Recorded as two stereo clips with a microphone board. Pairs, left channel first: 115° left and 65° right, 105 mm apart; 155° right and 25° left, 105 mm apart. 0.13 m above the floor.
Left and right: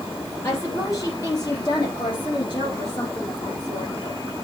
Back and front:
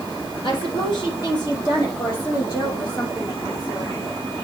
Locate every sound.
0.4 s a woman speaking: 170° left, 2.5 m; by 3.9 s 150° left, 5 m